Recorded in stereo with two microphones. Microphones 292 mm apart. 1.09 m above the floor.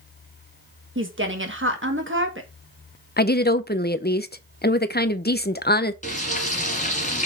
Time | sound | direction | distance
0.9 | a woman speaking | 40° right (ahead or behind) | 1.5 m
3.2 | a woman speaking | 35° left (ahead or behind) | 0.6 m
6.0 | frying | 25° left (ahead or behind) | 2 m